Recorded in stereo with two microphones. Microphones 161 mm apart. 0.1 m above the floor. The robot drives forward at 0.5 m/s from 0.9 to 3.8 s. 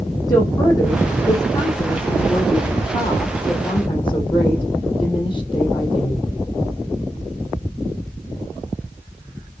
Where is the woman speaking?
20° left (ahead or behind), 4.5 m; by 6.3 s 30° left (ahead or behind), 3.5 m.